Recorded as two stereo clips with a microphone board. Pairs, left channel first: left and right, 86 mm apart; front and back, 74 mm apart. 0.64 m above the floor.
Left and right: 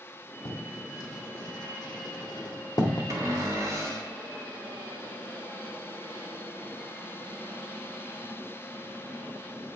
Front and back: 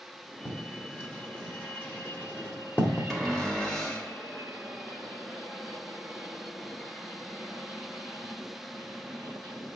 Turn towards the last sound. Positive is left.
turn(degrees=-80)